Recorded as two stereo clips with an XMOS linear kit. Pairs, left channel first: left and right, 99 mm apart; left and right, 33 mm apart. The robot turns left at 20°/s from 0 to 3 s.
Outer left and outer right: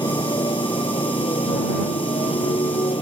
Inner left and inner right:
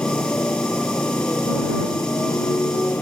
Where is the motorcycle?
130° left; by 3.0 s 70° left.